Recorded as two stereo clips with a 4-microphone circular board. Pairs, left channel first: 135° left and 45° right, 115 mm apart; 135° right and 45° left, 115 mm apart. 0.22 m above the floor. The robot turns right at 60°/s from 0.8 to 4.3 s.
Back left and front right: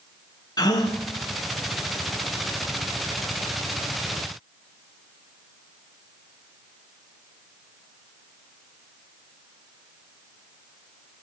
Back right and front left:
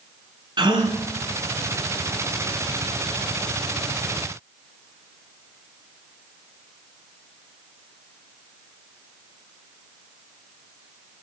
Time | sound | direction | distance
0.6 | a gasp | 85° left | 1.1 m